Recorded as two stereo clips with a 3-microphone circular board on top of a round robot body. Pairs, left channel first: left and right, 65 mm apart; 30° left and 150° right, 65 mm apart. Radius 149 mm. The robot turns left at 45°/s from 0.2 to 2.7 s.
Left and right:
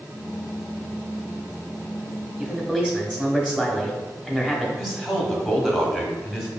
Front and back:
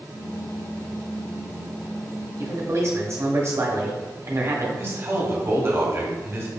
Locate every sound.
2.4 s a man speaking: 150° right, 1.3 m; by 4.7 s 165° right, 1.3 m
4.8 s a man speaking: 175° right, 1.2 m